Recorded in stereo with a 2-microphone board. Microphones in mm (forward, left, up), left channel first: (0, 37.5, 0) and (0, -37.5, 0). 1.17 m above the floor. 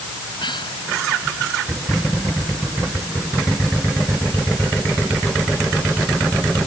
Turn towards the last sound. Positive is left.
turn(degrees=85)